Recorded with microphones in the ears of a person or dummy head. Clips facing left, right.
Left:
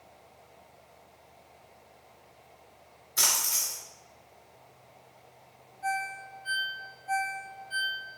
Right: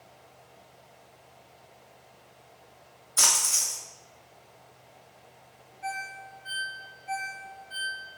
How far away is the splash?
About 3 m.